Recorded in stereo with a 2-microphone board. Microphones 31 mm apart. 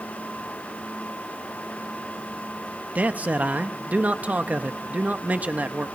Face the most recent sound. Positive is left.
turn(degrees=-55)  # may be behind; listen again after turning